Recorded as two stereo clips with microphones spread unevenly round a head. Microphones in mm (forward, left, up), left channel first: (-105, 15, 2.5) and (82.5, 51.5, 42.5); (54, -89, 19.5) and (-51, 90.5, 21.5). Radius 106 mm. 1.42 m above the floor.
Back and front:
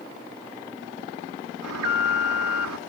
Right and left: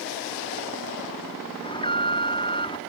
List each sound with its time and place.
1.6 s an alarm: 5° left